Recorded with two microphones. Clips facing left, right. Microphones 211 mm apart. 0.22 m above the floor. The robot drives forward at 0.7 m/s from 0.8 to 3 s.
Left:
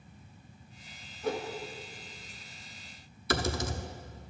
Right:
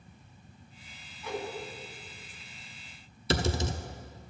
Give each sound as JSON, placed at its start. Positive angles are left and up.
{"t": 1.2, "sound": "a whoosh", "side_deg": 50, "distance_m": 1.1}
{"t": 3.3, "sound": "typing on a keyboard", "side_deg": -25, "distance_m": 0.7}